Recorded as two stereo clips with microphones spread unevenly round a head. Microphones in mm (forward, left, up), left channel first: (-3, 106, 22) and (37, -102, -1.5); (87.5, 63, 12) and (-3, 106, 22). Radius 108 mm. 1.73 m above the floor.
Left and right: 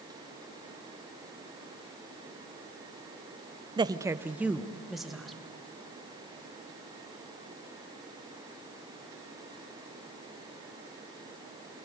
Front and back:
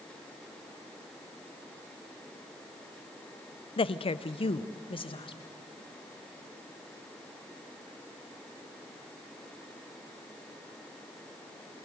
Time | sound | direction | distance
3.8 | a woman speaking | 10° right | 0.7 m